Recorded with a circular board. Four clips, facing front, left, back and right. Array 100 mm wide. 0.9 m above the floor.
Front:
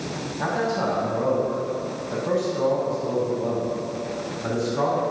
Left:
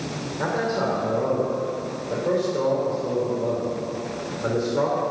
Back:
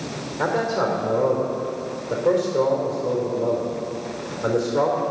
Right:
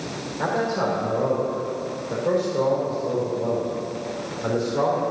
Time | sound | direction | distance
0.4 | a man speaking | straight behind | 3 m